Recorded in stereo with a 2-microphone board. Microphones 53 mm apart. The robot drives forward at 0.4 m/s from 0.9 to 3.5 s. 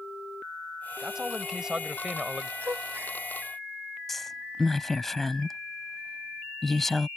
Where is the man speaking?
10° right (ahead or behind); by 2.5 s 15° right (ahead or behind).